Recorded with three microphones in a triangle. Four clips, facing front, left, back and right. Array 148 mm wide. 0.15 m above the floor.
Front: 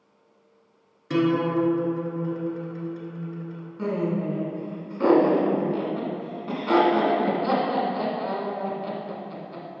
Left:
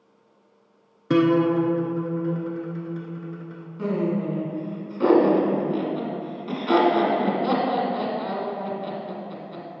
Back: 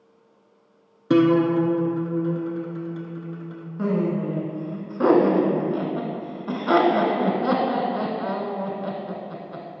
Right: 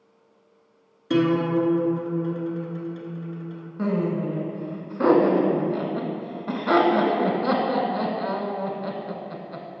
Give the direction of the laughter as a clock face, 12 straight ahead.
4 o'clock.